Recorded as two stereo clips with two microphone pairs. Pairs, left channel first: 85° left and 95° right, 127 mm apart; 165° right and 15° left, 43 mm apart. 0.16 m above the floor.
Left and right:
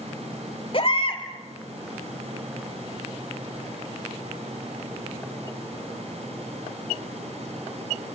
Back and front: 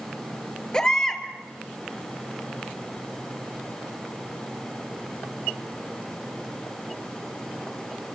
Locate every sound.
0.7 s a baby crying: 125° left, 2.5 m